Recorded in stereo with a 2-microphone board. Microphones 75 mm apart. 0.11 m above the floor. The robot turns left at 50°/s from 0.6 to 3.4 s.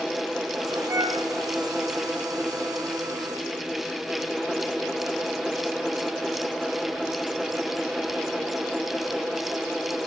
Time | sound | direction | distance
0.9 | a flute | 50° right (ahead or behind) | 7 m